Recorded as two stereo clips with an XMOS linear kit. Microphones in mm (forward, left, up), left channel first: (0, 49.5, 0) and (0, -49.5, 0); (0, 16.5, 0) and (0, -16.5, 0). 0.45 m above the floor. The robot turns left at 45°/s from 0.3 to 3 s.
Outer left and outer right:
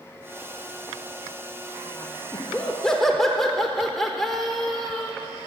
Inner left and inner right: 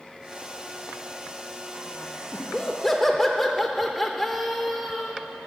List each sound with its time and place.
2.3 s laughter: 35° left, 1.1 m; by 5.1 s 5° left, 1.1 m